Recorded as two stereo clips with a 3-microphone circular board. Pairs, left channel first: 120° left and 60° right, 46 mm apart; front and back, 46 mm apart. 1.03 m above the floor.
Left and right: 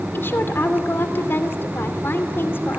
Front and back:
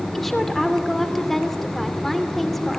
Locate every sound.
0.1 s a woman speaking: 90° left, 2.5 m